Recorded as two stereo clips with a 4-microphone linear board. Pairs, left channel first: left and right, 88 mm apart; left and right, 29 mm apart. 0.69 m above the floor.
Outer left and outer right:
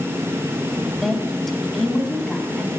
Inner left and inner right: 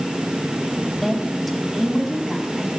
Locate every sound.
1.0 s a woman speaking: centre (ahead or behind), 3 m; by 2.7 s 5° left (ahead or behind), 5.5 m